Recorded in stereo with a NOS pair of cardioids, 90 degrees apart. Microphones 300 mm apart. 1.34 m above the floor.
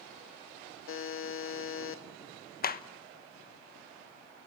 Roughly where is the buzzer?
Ahead left.